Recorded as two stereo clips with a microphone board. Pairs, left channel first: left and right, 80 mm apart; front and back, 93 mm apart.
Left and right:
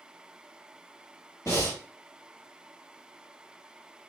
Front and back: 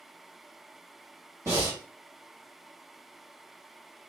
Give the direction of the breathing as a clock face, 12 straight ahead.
8 o'clock.